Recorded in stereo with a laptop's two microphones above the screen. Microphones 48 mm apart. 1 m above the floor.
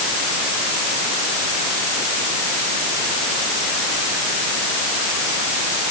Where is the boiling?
I don't hear boiling.